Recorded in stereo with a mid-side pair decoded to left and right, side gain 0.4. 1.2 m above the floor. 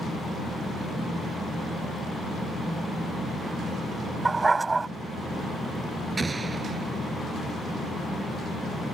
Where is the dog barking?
25° right.